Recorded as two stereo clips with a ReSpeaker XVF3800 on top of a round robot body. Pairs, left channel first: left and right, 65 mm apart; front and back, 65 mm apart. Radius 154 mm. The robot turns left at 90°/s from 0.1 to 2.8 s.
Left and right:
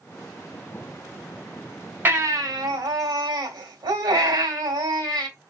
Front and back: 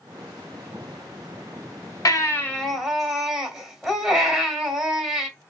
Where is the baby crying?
30° right, 2 m; by 5.3 s 100° right, 2 m.